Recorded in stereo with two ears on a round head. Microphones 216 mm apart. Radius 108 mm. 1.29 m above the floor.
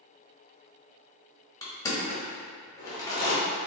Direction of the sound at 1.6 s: 15° left (ahead or behind).